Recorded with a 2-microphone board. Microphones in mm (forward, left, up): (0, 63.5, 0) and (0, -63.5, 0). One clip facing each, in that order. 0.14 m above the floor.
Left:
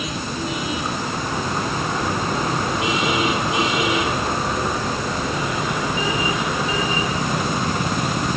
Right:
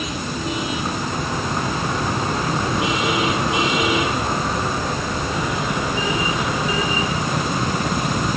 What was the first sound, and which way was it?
Only background noise.